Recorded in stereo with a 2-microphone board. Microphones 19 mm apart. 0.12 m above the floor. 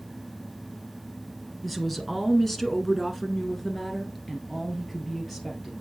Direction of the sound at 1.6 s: 10° left (ahead or behind).